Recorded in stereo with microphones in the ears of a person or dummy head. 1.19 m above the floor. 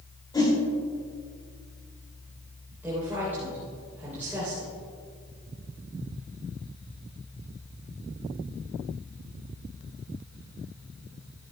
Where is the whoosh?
25° left (ahead or behind), 2.5 m.